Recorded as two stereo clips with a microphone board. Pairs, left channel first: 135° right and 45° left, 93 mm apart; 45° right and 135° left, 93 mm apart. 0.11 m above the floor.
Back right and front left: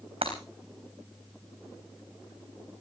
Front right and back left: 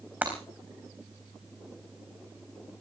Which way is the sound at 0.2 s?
60° left.